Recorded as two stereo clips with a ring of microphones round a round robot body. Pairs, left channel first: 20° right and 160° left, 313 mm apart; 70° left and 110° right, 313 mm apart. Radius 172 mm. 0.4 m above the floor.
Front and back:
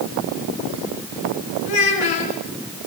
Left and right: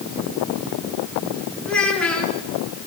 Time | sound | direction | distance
1.6 | a child speaking | 20° right | 4 m